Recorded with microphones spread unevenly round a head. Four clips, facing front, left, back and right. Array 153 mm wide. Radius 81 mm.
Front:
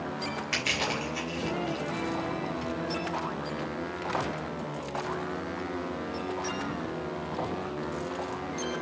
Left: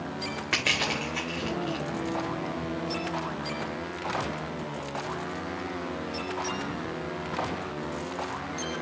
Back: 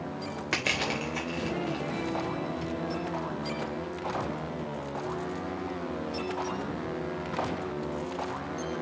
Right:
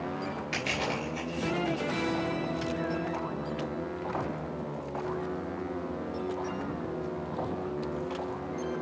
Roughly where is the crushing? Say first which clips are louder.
Left 3 dB, back 3 dB; behind left.